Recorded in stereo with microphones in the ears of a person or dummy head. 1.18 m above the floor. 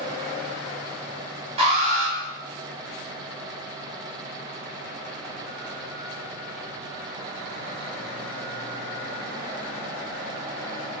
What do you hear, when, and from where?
1.6 s an alarm: 35° right (ahead or behind), 1.3 m